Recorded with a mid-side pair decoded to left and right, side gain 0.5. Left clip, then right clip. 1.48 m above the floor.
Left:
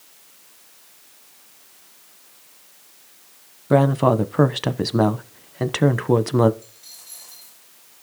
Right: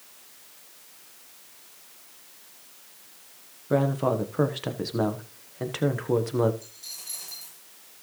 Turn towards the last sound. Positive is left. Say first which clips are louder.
# right 3 dB
turn(degrees=-60)